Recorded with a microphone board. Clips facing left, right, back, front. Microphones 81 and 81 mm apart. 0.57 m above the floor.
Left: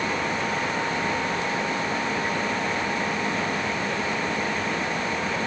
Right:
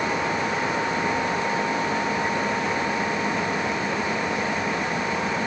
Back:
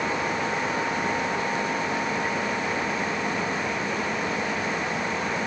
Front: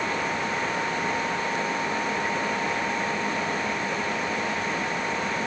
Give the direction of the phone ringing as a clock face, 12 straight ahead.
No phone ringing in this recording.